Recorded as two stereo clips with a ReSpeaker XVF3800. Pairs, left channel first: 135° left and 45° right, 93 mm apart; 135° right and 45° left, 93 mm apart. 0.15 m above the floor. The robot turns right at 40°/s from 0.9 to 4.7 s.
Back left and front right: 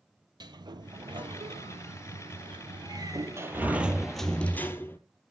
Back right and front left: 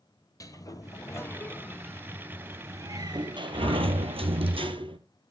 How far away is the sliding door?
About 0.9 m.